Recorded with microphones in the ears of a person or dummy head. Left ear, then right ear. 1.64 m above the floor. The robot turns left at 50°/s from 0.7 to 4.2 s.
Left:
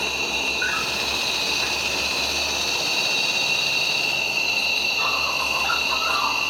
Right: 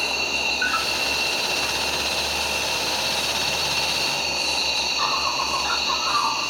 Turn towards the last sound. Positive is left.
turn(degrees=10)